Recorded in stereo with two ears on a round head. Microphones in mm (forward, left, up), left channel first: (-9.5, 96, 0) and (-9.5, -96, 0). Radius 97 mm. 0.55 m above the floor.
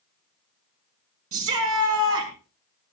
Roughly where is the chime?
No chime in this recording.